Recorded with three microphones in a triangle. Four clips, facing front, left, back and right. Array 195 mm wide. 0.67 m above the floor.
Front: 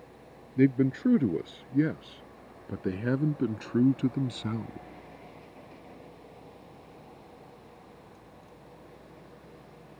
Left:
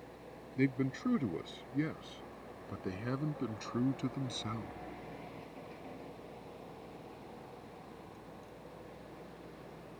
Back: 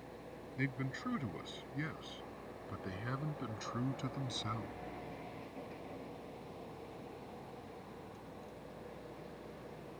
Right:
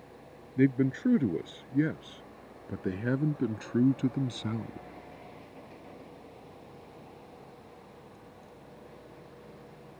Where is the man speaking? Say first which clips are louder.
Right 8 dB, front 18 dB; 20° right; by 4.9 s 30° right.